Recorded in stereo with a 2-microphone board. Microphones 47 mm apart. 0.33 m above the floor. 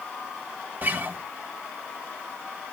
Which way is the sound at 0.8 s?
40° right (ahead or behind).